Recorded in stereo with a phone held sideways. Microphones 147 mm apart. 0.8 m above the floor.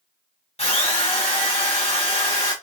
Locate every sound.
0.6 s a drill: 45° left (ahead or behind), 1.2 m